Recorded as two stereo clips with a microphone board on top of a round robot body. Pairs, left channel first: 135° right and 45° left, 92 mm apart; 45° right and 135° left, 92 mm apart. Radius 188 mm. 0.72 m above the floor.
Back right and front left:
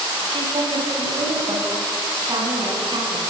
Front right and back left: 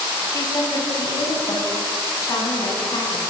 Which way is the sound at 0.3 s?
10° left.